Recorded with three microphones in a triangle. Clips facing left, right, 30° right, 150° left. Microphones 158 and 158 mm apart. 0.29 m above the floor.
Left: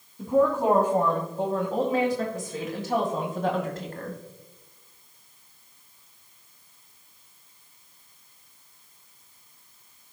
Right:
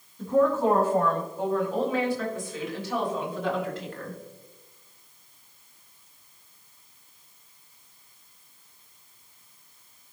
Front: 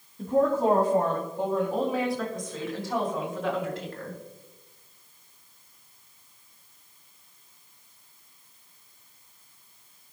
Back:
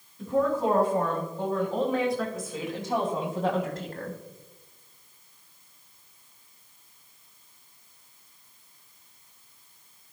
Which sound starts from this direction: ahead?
A woman speaking, at 0.2 s.